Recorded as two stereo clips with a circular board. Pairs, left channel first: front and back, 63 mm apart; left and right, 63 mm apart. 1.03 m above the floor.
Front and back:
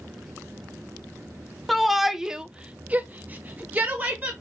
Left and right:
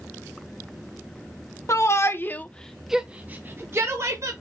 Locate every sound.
1.7 s a shout: 90° left, 0.8 m; by 4.3 s 120° right, 1.1 m